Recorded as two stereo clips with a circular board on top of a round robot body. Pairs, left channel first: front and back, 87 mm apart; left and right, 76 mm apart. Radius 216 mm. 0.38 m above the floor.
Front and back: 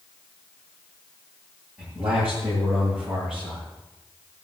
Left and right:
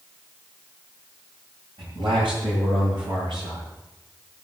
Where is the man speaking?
100° right, 9 m; by 3.6 s 95° right, 8 m.